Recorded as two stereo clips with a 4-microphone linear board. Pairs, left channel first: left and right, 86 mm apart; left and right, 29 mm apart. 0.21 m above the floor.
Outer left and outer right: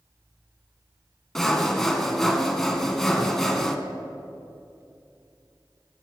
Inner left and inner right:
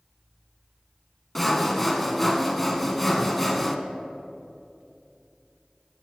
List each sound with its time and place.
1.4 s sawing: 5° left (ahead or behind), 0.6 m